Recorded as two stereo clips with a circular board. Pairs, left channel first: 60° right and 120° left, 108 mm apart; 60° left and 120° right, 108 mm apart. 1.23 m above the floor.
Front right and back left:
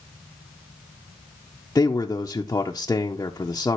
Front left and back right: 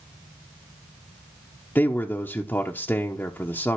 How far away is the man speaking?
About 0.9 m.